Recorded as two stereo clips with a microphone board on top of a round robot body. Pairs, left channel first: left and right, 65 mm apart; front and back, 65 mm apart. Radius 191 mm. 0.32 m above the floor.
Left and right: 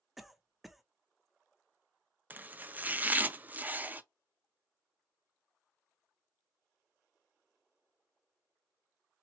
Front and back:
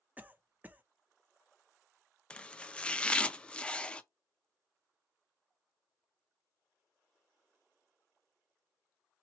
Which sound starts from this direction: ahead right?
Chopping, at 2.3 s.